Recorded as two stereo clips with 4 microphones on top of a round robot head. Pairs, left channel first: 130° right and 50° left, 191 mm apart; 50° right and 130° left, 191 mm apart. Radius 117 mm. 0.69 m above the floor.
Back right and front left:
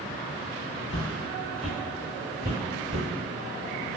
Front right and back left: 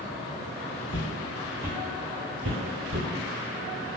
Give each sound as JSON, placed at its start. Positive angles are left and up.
{"t": 0.9, "sound": "footsteps", "azimuth_deg": -115, "distance_m": 1.1}